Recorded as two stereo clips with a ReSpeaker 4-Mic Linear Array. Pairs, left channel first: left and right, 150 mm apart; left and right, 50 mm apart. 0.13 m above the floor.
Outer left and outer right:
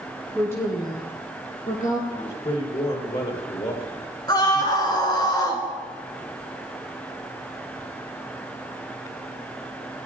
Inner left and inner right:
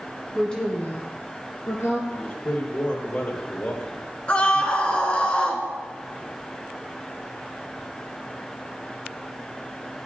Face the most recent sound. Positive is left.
turn(degrees=30)  # may be behind; listen again after turning